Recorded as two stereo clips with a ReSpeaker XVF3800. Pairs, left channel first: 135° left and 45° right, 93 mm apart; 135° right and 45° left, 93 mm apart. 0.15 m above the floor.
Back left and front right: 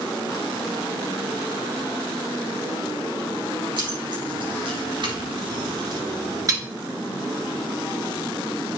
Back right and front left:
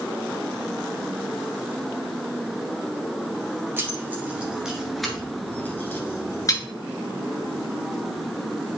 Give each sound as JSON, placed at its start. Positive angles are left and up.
{"t": 3.8, "sound": "keys jangling", "azimuth_deg": -20, "distance_m": 2.0}